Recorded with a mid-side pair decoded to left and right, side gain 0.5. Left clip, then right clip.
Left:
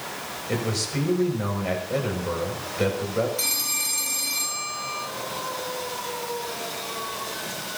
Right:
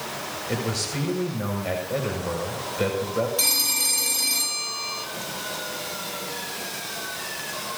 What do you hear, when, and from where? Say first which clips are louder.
0.5 s a man speaking: left 1 dB; 5° left, 6.5 m
3.4 s a phone ringing: right 3 dB; 30° right, 4 m